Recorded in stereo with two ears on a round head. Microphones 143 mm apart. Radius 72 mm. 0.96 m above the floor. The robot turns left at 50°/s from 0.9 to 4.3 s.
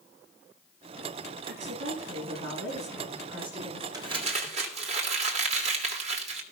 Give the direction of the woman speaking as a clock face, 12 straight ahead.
2 o'clock.